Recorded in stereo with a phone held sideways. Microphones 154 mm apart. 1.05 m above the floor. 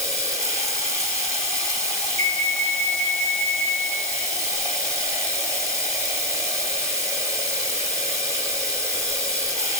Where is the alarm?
60° right (ahead or behind), 1.5 m.